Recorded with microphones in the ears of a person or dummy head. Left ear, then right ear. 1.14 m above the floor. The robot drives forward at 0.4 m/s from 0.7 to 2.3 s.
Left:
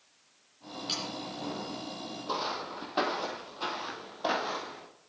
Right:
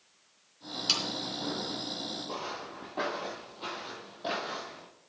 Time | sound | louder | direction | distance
0.9 | sawing | right 6 dB | 35° right (ahead or behind) | 2.5 m
2.3 | footsteps | left 4 dB | 55° left (ahead or behind) | 2 m